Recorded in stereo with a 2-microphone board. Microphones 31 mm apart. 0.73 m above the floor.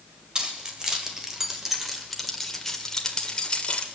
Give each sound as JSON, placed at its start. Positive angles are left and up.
{"t": 0.3, "sound": "keys jangling", "side_deg": -30, "distance_m": 2.0}